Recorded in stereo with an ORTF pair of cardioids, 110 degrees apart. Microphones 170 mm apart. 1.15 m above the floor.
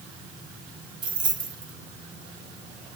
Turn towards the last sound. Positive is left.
turn(degrees=-30)